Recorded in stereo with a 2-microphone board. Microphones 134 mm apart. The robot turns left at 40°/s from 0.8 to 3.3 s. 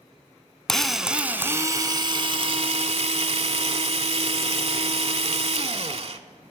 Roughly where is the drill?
Ahead.